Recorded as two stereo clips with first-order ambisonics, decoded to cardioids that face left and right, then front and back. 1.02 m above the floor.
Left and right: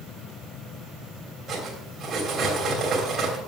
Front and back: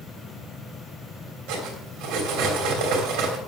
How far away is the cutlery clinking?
About 3 m.